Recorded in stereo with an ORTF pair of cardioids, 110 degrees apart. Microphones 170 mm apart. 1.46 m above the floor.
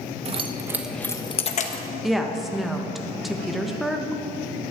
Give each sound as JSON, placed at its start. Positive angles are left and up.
{"t": 0.2, "sound": "keys jangling", "azimuth_deg": -40, "distance_m": 1.4}
{"t": 2.0, "sound": "a woman speaking", "azimuth_deg": 0, "distance_m": 1.7}